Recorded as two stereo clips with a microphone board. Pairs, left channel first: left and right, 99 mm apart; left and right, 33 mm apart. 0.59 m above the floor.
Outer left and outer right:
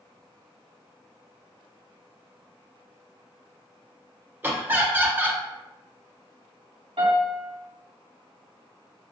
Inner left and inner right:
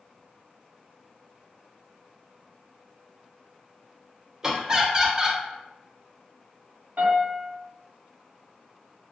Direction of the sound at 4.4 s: 20° right (ahead or behind).